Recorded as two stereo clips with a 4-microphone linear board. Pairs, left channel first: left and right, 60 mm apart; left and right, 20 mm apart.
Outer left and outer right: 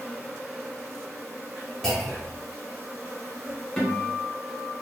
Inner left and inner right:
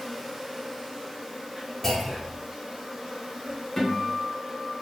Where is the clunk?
10° left (ahead or behind), 0.8 m.